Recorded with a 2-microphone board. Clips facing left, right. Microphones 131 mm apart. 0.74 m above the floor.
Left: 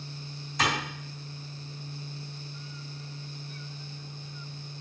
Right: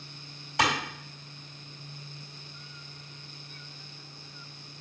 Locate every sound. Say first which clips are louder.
0.6 s a clap: right 2 dB; 80° right, 3.5 m